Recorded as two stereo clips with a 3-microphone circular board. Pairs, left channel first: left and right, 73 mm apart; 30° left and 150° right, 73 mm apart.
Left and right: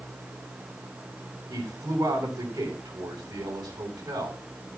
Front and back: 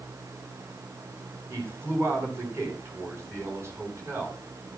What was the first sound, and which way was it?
A man speaking, 100° right.